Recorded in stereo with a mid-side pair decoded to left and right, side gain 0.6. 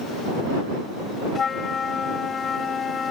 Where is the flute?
35° left.